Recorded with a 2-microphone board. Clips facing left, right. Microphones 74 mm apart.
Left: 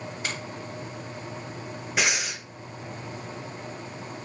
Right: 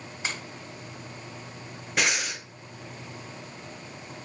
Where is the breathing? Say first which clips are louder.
Even; 5° left (ahead or behind), 0.6 m.